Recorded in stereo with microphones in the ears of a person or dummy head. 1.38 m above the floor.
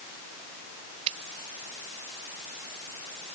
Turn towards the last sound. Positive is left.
turn(degrees=-35)  # may be behind; listen again after turning